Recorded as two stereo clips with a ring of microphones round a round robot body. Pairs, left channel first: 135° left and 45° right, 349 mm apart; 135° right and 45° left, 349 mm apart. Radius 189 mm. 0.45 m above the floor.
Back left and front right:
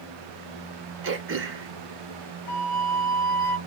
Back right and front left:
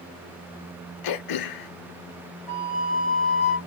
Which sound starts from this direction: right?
Throat clearing, at 1.0 s.